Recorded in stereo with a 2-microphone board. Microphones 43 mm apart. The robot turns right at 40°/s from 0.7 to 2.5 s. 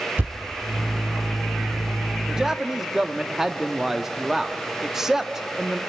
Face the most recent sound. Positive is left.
turn(degrees=-10)  # may be behind; listen again after turning